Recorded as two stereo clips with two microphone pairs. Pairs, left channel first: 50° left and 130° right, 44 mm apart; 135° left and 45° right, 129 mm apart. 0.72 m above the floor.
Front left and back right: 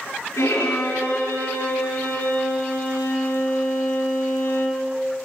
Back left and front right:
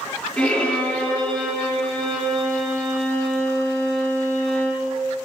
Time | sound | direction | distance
0.4 | a violin | 50° left | 7.5 m